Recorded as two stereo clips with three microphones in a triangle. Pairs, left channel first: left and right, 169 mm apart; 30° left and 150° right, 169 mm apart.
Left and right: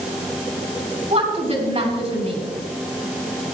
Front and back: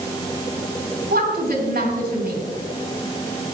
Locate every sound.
1.1 s a woman speaking: 135° right, 5 m